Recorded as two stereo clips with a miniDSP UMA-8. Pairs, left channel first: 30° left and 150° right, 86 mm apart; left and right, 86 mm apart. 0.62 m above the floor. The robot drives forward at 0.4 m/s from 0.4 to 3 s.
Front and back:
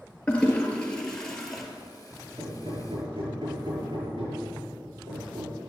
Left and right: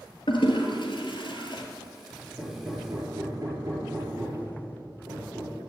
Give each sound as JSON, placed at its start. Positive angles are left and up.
{"t": 0.3, "sound": "a toilet flushing", "azimuth_deg": 105, "distance_m": 2.0}
{"t": 2.4, "sound": "hammering", "azimuth_deg": -145, "distance_m": 5.0}